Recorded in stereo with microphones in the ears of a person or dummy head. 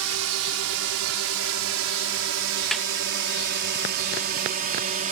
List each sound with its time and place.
0.0 s a drone: 80° right; by 5.1 s 40° right (ahead or behind)
2.7 s a snare drum: 5° left (ahead or behind)